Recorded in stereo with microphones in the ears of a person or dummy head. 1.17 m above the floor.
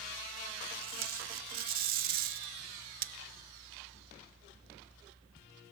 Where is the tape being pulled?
45° right (ahead or behind), 0.8 m.